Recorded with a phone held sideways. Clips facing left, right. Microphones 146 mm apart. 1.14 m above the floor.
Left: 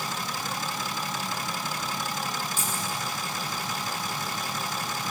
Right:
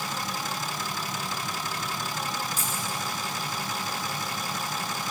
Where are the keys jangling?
35° right (ahead or behind), 8 m.